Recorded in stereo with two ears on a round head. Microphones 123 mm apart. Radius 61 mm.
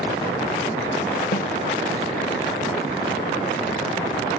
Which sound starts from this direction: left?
A snare drum, at 1.3 s.